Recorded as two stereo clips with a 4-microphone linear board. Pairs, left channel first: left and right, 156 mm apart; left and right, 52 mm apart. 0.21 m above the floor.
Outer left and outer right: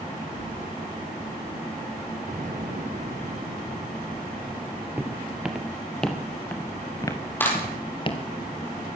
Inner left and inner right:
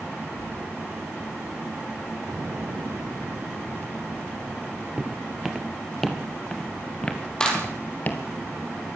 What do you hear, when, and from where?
0.4 s keys jangling: 75° right (ahead or behind), 4.5 m
2.3 s an explosion: 60° right (ahead or behind), 3 m
5.0 s footsteps: 10° right (ahead or behind), 2.5 m; by 8.2 s 35° left (ahead or behind), 3 m
7.4 s a clap: 10° left (ahead or behind), 7 m